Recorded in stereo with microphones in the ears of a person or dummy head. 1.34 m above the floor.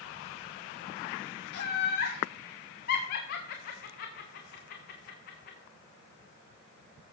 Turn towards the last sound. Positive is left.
turn(degrees=50)  # may be behind; listen again after turning